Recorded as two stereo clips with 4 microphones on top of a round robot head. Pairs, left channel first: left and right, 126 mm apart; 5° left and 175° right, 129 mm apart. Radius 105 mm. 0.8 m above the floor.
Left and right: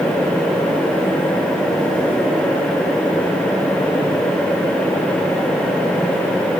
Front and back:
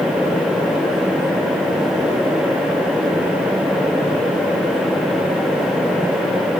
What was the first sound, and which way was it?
Only background noise.